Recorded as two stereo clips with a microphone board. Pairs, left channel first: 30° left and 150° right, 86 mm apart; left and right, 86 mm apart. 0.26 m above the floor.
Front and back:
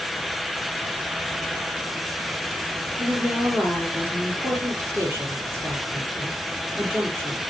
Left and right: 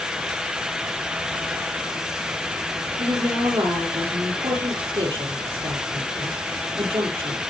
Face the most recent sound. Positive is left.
turn(degrees=-90)